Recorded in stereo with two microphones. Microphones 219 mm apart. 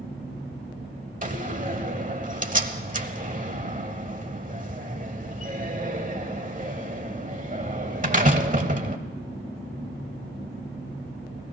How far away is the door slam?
About 1.0 m.